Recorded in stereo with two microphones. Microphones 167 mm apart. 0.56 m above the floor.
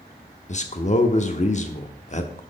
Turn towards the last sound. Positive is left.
turn(degrees=45)  # may be behind; listen again after turning